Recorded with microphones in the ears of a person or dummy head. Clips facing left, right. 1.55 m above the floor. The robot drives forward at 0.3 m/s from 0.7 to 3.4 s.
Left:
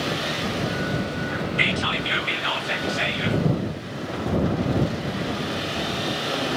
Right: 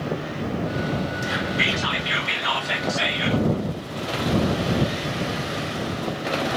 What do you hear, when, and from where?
1.6 s whispering: 40° left (ahead or behind), 0.6 m; by 3.5 s 20° left (ahead or behind), 0.9 m